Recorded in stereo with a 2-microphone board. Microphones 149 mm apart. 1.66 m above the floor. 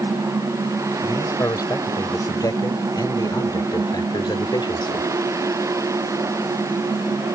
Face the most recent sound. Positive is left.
turn(degrees=35)  # may be behind; listen again after turning